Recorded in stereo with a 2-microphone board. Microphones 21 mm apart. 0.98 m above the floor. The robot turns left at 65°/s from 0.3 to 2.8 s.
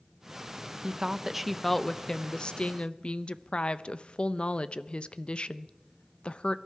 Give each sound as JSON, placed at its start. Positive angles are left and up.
{"t": 0.8, "sound": "a woman speaking", "azimuth_deg": -130, "distance_m": 0.6}